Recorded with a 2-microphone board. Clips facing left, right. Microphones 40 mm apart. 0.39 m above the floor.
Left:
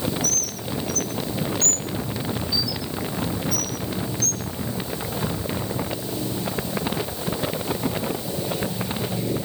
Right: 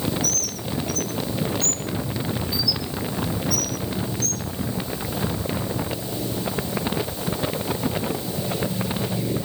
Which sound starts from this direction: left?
A bird, at 0.2 s.